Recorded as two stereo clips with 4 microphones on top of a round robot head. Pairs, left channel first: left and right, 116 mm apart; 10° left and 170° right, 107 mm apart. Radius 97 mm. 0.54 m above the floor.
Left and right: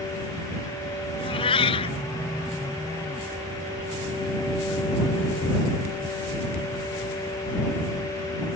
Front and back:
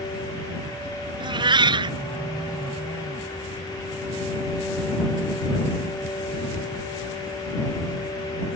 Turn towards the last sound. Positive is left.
turn(degrees=145)